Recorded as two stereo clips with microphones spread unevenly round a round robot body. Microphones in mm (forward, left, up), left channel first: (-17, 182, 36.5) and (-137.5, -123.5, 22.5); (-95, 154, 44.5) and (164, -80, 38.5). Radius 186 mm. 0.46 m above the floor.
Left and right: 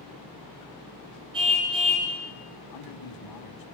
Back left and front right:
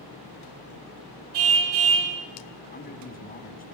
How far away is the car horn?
About 4.5 m.